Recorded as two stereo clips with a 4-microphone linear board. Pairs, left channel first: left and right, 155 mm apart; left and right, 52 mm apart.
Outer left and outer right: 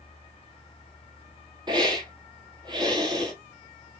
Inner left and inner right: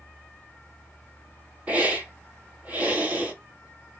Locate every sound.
1.7 s a hiss: 30° right (ahead or behind), 1.9 m